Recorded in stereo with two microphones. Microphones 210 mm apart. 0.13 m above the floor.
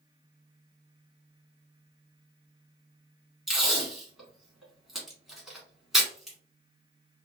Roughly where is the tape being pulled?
Centre.